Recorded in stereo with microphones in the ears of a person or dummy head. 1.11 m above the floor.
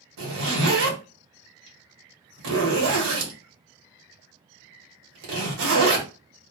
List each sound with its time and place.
0.2 s a zipper: 75° right (ahead or behind), 1.1 m